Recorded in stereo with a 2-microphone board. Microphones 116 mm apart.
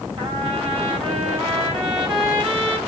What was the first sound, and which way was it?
A trumpet, 45° right (ahead or behind).